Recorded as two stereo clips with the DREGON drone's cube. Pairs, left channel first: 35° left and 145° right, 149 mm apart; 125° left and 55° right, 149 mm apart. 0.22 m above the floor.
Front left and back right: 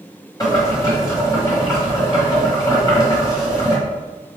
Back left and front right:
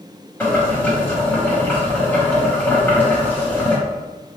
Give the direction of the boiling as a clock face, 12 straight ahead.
10 o'clock.